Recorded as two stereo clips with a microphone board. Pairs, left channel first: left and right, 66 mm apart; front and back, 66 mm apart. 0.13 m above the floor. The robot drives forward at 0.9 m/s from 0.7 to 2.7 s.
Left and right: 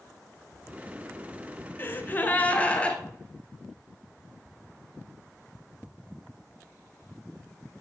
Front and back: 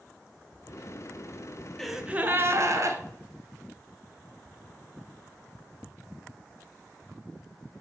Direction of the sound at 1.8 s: 80° left.